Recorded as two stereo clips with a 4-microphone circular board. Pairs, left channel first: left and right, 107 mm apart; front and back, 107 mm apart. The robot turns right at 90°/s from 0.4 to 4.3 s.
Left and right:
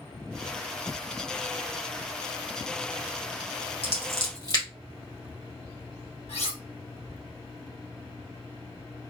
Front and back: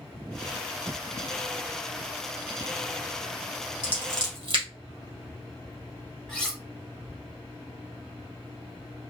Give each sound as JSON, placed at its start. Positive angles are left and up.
{"t": 3.8, "sound": "scissors", "azimuth_deg": 100, "distance_m": 1.8}
{"t": 6.3, "sound": "cutlery clinking", "azimuth_deg": 85, "distance_m": 1.2}